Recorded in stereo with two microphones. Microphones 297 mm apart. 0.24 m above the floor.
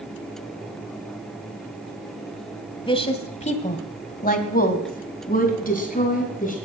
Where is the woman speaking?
15° left (ahead or behind), 1.6 m; by 6.5 s 25° left (ahead or behind), 3 m.